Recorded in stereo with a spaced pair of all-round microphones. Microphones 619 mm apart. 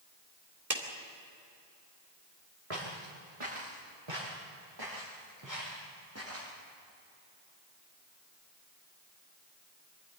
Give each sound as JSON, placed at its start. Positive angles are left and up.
{"t": 0.7, "sound": "a clap", "side_deg": -70, "distance_m": 2.5}
{"t": 2.7, "sound": "footsteps", "side_deg": -60, "distance_m": 5.0}